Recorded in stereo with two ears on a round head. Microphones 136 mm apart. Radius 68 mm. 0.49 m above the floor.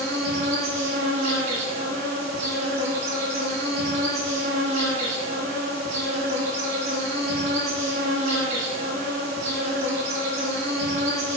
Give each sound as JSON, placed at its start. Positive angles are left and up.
{"t": 0.0, "sound": "an insect", "side_deg": -45, "distance_m": 5.5}